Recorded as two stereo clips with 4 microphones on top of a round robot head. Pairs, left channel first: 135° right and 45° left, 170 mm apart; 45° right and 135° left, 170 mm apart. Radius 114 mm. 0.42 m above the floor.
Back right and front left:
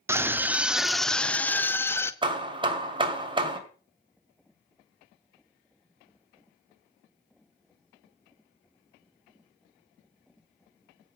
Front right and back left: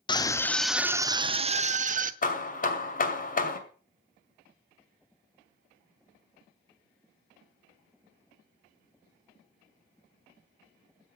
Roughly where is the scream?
Ahead.